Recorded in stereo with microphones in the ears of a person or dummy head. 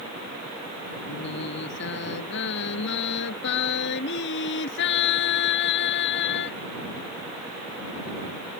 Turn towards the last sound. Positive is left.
turn(degrees=65)  # may be behind; listen again after turning